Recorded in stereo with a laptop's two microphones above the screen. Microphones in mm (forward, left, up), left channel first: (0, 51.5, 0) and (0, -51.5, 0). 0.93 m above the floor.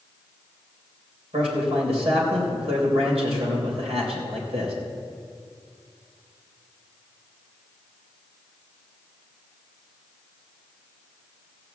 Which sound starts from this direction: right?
A man speaking, at 1.3 s.